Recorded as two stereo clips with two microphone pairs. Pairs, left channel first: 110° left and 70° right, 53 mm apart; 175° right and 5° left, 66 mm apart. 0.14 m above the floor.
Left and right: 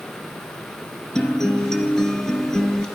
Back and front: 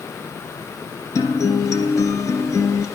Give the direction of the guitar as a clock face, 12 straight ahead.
6 o'clock.